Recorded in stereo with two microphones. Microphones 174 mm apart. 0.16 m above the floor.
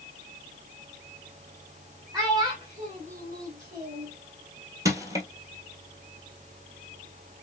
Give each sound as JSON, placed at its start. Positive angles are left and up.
{"t": 2.1, "sound": "a child speaking", "side_deg": -20, "distance_m": 1.1}
{"t": 4.8, "sound": "crushing", "side_deg": -20, "distance_m": 1.1}